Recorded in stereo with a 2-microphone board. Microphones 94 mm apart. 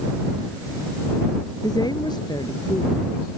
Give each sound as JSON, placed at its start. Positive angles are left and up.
{"t": 1.6, "sound": "a woman speaking", "side_deg": 45}